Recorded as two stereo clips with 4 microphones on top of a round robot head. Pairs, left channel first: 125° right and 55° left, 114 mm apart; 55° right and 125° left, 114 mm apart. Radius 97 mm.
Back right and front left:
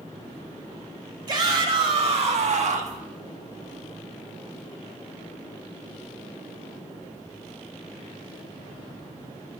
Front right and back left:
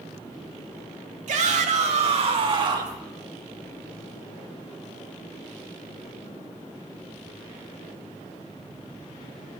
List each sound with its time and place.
1.3 s a shout: 105° left, 3 m; by 3.0 s 65° left, 2.5 m